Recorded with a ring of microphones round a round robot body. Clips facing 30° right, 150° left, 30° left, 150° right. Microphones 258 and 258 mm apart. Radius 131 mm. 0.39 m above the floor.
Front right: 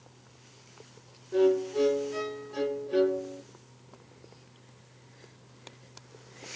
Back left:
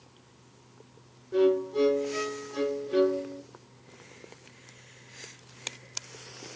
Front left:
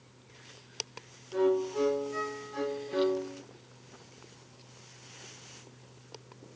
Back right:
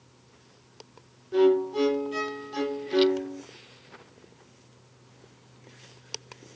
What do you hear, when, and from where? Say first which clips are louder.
1.3 s a violin: even, back right 6 dB; 125° right, 0.7 m